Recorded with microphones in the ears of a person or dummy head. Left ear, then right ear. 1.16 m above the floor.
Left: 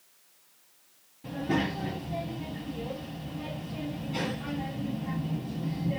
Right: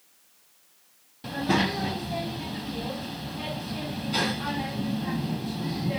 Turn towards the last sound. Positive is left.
turn(degrees=-50)  # may be behind; listen again after turning